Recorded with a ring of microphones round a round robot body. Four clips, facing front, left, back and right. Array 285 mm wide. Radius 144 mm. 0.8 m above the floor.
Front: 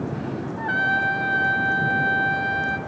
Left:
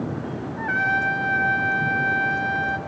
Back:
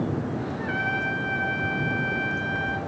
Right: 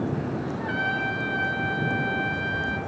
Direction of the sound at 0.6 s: 40° left.